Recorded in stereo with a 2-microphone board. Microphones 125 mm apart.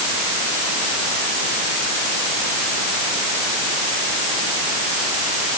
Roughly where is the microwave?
No microwave in this recording.